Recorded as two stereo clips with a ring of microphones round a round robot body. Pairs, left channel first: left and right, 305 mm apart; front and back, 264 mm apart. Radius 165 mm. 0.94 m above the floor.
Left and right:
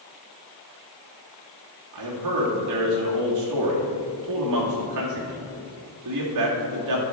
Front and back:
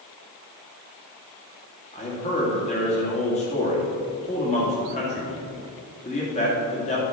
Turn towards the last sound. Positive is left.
turn(degrees=-65)